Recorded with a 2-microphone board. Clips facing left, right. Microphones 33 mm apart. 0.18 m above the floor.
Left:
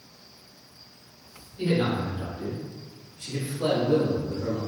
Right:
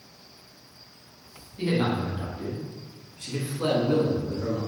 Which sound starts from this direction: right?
A man speaking, at 1.6 s.